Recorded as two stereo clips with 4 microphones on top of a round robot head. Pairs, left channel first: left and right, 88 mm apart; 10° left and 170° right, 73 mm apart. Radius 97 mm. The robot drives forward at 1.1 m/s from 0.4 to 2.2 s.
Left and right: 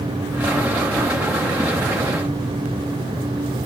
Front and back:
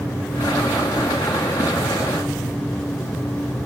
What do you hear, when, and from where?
Only background noise.